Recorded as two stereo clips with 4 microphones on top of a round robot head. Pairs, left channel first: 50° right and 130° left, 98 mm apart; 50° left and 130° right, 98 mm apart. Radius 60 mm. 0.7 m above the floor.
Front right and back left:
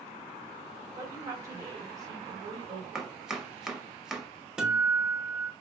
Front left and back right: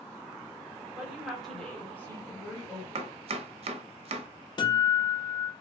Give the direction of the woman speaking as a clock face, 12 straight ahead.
7 o'clock.